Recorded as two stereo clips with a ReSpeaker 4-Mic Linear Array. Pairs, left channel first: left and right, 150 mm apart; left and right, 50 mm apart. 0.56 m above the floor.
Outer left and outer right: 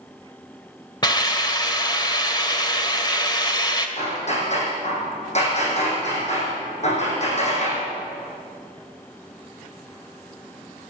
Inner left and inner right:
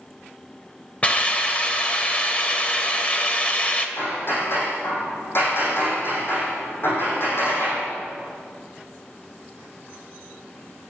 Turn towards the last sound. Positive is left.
turn(degrees=45)  # may be behind; listen again after turning